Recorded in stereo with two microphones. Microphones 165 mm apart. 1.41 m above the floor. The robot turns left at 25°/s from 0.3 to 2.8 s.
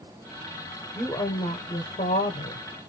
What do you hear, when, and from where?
0.9 s a woman speaking: 160° left, 0.8 m; by 2.6 s 115° left, 0.8 m